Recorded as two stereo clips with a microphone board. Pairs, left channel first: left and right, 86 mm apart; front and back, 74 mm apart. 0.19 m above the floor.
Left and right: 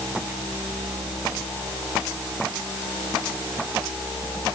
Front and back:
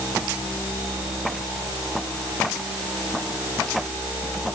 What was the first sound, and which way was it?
Only background noise.